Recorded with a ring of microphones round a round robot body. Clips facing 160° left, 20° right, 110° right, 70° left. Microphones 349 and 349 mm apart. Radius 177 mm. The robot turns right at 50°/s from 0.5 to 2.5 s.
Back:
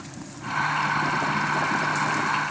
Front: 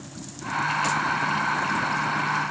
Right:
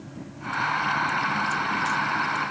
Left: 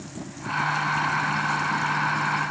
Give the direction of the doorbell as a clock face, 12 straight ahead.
No doorbell in this recording.